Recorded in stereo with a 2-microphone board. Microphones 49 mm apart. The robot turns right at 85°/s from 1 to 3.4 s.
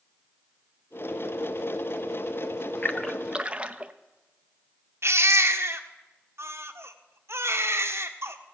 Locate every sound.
2.8 s a splash: 25° left (ahead or behind), 0.6 m; by 3.9 s 20° right (ahead or behind), 0.6 m
5.0 s a baby crying: 60° right (ahead or behind), 1.0 m